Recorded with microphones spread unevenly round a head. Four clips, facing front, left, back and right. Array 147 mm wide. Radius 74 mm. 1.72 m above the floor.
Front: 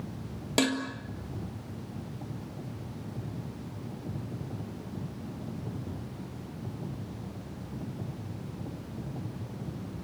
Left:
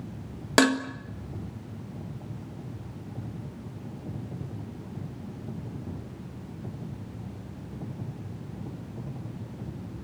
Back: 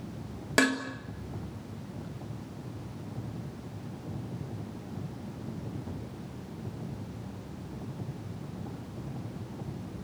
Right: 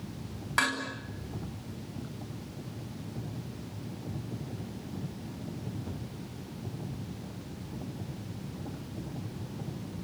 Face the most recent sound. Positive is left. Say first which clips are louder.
# left 9 dB, back 1 dB
turn(degrees=65)